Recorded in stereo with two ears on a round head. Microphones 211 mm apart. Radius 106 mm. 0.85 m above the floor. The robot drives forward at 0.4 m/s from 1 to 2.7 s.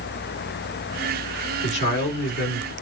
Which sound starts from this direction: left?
A man speaking, at 1.6 s.